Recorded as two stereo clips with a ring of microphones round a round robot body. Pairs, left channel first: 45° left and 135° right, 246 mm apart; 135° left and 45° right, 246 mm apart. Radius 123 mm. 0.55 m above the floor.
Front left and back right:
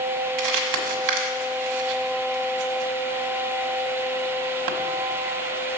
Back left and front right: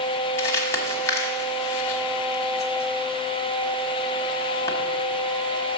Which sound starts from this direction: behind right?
Crumpling, at 0.4 s.